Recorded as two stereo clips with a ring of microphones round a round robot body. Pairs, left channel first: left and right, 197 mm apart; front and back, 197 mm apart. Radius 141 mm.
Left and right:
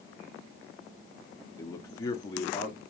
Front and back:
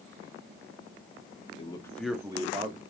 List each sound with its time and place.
1.6 s a man speaking: 30° left, 1.0 m; by 2.8 s 160° left, 1.1 m